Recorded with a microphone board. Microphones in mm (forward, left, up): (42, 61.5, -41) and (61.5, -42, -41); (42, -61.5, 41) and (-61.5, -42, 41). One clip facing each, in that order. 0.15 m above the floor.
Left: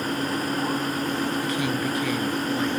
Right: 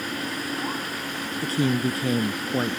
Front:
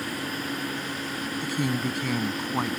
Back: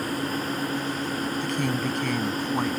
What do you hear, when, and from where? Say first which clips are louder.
1.4 s a woman speaking: right 2 dB, front 2 dB; 90° right